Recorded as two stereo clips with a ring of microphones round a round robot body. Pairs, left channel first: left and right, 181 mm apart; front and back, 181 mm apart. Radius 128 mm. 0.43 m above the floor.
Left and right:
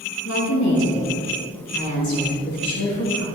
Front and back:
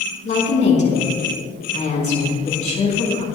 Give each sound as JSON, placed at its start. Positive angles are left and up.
{"t": 0.2, "sound": "a woman speaking", "azimuth_deg": 50, "distance_m": 4.0}